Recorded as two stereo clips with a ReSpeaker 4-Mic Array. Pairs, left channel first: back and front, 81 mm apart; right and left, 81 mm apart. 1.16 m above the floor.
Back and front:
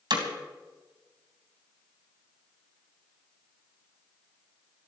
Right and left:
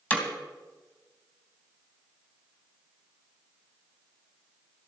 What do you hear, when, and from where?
0.1 s hammering: 20° right, 3 m